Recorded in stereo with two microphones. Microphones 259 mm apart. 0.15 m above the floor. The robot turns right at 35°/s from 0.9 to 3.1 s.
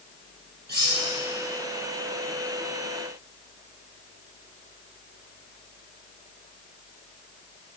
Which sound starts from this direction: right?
Cutlery clinking, at 0.7 s.